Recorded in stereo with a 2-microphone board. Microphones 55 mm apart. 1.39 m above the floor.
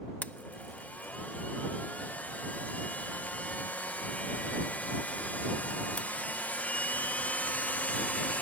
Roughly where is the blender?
Left.